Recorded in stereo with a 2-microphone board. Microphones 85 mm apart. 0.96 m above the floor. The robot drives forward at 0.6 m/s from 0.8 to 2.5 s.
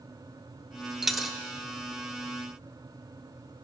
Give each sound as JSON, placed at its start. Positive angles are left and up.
{"t": 1.0, "sound": "a dropped coin", "side_deg": -5, "distance_m": 1.1}